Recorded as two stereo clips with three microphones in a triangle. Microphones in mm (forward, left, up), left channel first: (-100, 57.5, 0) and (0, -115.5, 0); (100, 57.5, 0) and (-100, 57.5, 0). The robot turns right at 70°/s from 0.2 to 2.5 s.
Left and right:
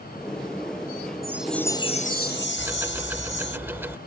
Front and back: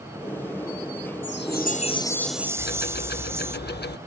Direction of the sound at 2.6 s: 15° left.